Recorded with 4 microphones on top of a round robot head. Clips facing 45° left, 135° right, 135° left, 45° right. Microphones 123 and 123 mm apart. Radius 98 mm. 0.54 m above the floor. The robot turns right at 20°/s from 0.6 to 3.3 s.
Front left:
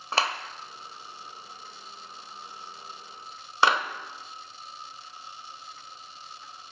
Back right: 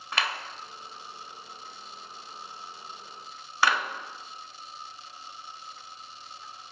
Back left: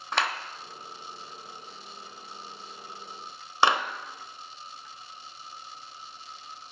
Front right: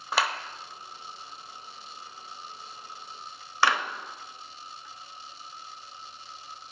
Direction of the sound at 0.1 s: 35° left.